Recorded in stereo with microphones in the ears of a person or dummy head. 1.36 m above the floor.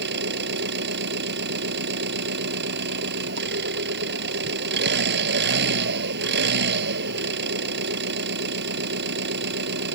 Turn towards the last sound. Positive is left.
turn(degrees=-60)  # may be behind; listen again after turning